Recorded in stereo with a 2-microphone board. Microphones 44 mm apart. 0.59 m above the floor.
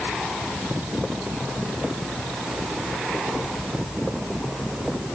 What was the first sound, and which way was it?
Only background noise.